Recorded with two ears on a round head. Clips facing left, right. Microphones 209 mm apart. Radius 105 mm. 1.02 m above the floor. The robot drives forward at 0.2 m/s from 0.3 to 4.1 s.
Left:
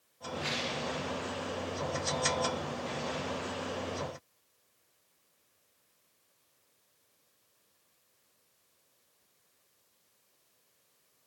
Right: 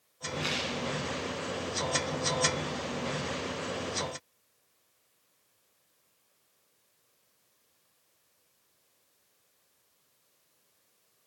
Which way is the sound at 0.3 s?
65° right (ahead or behind).